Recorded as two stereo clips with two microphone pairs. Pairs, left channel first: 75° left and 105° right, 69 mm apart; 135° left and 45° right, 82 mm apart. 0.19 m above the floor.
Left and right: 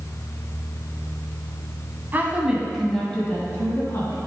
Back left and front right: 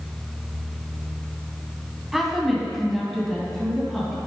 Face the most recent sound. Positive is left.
turn(degrees=55)